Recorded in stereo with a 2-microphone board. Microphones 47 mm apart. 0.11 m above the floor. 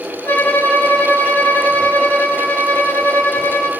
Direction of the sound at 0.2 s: 40° left (ahead or behind).